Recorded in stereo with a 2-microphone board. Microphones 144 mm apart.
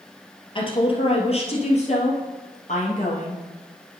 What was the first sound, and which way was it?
A woman speaking, 40° left (ahead or behind).